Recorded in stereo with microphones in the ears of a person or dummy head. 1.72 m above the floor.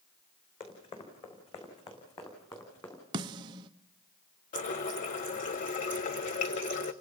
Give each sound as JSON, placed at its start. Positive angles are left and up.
{"t": 0.6, "sound": "running footsteps", "side_deg": 30, "distance_m": 5.5}
{"t": 3.1, "sound": "a snare drum", "side_deg": -25, "distance_m": 0.7}
{"t": 4.5, "sound": "a running tap", "side_deg": 40, "distance_m": 0.8}